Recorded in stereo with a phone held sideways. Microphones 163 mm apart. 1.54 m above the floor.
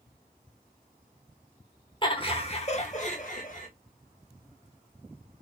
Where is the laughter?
30° left (ahead or behind), 1.4 m; by 3.7 s 55° left (ahead or behind), 2 m.